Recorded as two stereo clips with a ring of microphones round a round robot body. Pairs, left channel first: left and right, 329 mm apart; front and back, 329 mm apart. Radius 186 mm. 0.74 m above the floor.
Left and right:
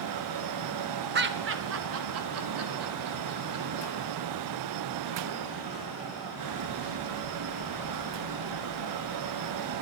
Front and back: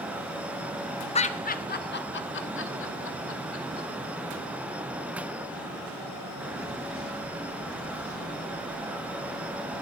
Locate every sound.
1.1 s laughter: 60° right, 0.8 m; by 3.9 s 50° right, 2 m